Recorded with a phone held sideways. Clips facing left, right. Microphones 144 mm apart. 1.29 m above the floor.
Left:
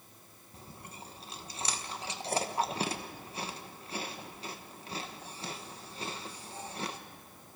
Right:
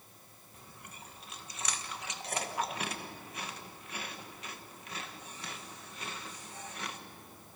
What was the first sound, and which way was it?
Chewing, 30° left (ahead or behind).